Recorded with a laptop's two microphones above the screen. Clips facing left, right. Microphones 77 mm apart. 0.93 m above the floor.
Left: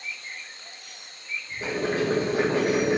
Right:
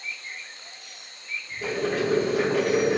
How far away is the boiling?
About 1.0 m.